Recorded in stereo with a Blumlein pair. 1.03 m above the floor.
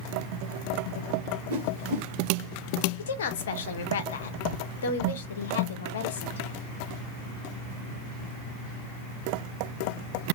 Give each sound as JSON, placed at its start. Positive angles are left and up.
{"t": 1.5, "sound": "a whoosh", "azimuth_deg": -55, "distance_m": 1.5}
{"t": 3.0, "sound": "a woman speaking", "azimuth_deg": 60, "distance_m": 1.0}